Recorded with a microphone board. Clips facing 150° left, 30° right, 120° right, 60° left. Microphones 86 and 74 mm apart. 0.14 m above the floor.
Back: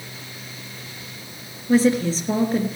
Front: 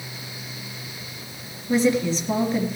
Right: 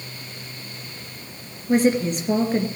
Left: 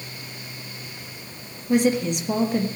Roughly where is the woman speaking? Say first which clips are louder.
Back 2 dB, right 1 dB; behind.